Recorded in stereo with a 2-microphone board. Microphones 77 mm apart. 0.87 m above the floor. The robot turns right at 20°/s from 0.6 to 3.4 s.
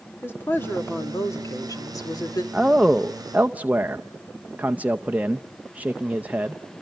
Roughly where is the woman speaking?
Ahead left.